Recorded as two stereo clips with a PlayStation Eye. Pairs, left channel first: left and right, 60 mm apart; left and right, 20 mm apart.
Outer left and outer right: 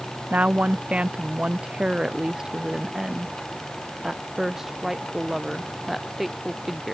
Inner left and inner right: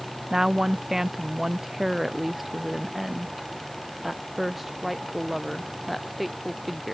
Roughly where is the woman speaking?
Right.